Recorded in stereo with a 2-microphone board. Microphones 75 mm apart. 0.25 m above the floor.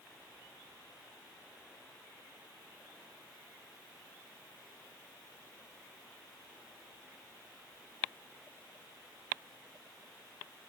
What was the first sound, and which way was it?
Only background noise.